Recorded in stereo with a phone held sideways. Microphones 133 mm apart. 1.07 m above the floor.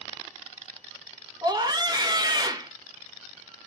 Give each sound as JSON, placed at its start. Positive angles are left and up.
{"t": 1.4, "sound": "a scream", "side_deg": -30, "distance_m": 1.1}